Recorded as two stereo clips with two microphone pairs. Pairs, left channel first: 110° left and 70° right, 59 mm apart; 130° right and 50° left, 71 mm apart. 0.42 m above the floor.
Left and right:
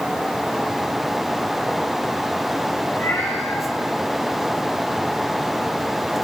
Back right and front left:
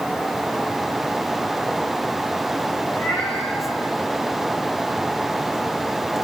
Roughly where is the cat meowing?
Behind.